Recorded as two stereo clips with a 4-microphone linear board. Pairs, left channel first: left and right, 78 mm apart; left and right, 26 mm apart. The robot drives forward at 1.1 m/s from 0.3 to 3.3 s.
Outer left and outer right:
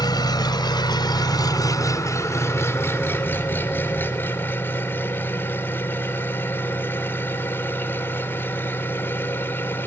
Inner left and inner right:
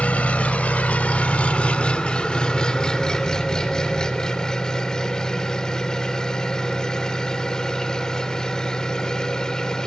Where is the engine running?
60° left (ahead or behind), 1.6 m; by 9.9 s 25° left (ahead or behind), 3 m.